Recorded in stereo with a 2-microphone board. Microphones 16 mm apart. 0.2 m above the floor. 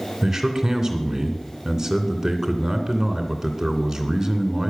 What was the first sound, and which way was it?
A man speaking, 30° right (ahead or behind).